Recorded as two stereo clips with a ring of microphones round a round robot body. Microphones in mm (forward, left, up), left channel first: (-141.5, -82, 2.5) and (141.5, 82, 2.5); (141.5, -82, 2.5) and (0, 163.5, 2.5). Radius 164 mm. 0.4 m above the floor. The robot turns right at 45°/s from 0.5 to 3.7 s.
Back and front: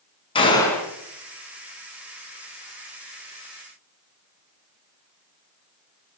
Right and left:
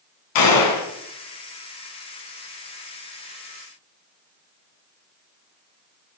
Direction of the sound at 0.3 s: 75° right.